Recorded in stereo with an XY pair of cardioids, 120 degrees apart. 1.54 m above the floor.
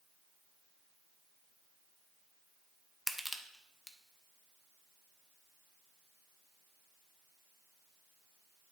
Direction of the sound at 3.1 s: 5° left.